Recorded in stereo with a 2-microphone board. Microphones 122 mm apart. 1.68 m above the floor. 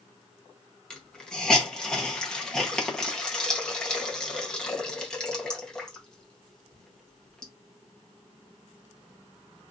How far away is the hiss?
About 1.0 m.